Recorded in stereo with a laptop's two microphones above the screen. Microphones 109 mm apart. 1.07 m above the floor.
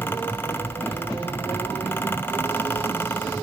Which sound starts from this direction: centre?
A fan, at 0.0 s.